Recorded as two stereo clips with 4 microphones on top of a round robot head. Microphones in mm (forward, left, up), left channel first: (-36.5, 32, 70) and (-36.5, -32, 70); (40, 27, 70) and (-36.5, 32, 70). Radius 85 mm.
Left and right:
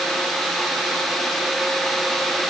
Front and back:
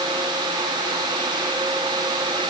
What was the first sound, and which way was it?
Only background noise.